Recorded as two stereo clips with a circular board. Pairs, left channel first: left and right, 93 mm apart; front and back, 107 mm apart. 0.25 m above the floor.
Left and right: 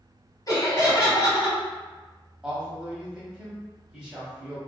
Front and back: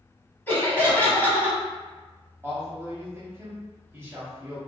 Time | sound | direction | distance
0.5 | laughter | 65° left | 1.3 m
2.4 | a man speaking | 160° right | 0.9 m